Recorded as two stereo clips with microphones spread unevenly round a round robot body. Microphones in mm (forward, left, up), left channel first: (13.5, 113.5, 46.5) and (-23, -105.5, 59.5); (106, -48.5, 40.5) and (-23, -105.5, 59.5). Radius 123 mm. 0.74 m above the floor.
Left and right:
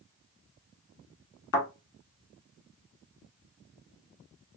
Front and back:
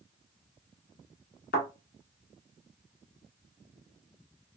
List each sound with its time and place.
1.5 s a thud: 55° left, 1.0 m